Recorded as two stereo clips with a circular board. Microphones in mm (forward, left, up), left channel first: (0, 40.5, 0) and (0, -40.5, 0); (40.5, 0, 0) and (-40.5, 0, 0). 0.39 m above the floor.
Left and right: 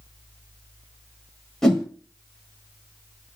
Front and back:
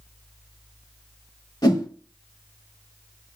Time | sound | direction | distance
1.6 | a whoosh | 10° left | 1.0 m